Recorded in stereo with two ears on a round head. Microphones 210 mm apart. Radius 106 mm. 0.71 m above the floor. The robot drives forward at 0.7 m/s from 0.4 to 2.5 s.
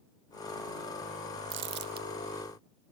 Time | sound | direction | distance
1.5 | crumpling | 55° right (ahead or behind) | 0.9 m